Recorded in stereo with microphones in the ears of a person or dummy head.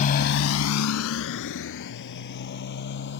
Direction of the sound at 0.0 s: 40° left (ahead or behind).